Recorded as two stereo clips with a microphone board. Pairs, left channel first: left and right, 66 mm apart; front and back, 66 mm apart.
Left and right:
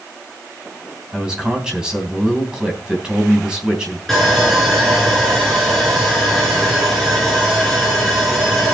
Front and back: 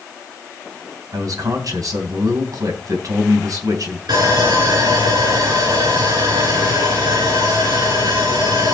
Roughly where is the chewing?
No chewing in this recording.